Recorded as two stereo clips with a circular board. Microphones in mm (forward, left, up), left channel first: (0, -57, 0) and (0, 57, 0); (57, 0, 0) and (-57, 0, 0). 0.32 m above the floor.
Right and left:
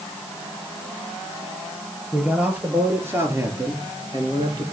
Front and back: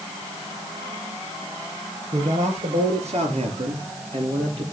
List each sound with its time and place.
2.1 s a man speaking: 170° left, 5.5 m; by 4.6 s 145° left, 7 m